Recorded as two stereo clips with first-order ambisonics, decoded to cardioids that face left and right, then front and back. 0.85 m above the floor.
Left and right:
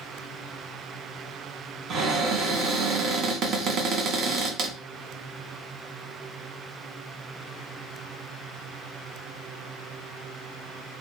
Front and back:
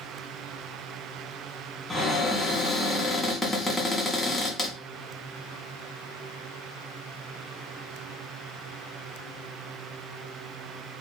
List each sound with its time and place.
1.9 s a cupboard door: 80° right, 0.8 m